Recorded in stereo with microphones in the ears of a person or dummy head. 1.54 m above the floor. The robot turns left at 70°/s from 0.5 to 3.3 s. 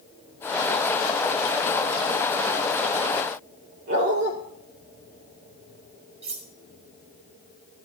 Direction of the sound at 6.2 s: 40° right (ahead or behind).